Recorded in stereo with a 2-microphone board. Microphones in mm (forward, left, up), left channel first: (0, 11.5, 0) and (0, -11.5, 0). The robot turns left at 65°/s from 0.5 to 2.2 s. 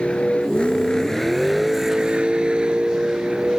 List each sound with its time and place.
0.0 s a vehicle: 60° left; by 3.6 s 50° right